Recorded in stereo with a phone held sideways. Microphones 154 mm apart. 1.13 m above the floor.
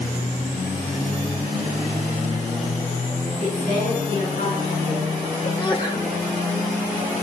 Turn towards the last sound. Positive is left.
turn(degrees=35)  # may be behind; listen again after turning